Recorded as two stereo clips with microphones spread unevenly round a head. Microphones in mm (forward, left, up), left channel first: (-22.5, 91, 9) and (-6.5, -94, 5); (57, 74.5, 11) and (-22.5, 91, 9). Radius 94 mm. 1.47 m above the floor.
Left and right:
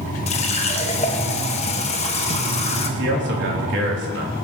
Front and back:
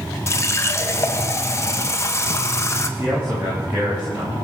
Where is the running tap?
40° left, 1.0 m.